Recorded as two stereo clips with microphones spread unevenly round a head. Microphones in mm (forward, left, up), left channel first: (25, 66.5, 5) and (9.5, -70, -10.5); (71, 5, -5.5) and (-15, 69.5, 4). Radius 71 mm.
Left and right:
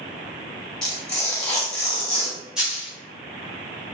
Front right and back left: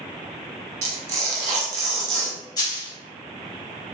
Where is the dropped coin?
5° right, 1.4 m.